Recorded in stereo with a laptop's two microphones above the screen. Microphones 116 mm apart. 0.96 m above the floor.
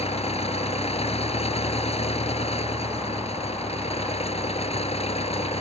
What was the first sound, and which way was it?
An engine running, 60° left (ahead or behind).